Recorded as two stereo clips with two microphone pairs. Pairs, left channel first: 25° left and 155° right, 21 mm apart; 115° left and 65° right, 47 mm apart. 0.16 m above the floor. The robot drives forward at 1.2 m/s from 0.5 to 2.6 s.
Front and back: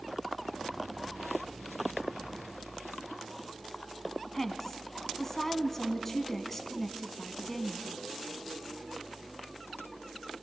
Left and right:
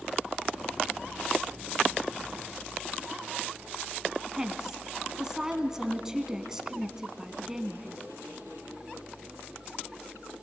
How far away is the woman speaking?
About 1.2 m.